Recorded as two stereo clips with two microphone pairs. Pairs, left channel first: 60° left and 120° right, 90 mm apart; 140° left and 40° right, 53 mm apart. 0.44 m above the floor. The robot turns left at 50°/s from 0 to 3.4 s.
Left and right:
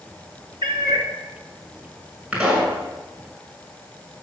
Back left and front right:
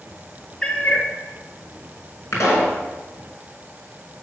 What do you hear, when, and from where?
0.6 s a cat meowing: 145° right, 2.5 m; by 1.1 s 170° right, 2.5 m
2.3 s a pop: 170° left, 6 m; by 2.8 s 145° left, 6 m